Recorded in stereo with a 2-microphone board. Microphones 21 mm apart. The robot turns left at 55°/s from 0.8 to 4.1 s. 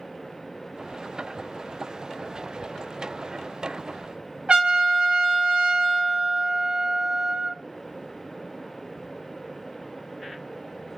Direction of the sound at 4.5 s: 55° right (ahead or behind).